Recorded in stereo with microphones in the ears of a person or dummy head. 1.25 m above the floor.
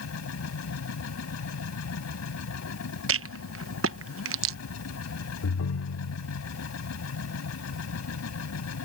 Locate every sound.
0.0 s a machine running: 85° left
3.1 s a rattle: 70° right (ahead or behind)
5.4 s a ringtone: 80° left